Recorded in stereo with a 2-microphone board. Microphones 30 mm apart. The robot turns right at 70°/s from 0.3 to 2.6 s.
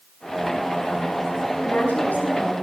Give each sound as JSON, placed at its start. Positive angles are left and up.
{"t": 1.6, "sound": "a woman speaking", "azimuth_deg": 80, "distance_m": 5.5}